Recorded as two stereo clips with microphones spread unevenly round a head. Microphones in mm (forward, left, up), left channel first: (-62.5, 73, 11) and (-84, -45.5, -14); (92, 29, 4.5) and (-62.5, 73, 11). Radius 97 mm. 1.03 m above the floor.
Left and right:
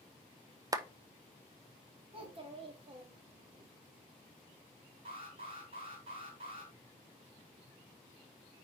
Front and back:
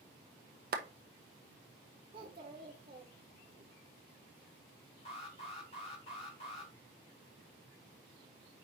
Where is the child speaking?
145° right, 1.6 m.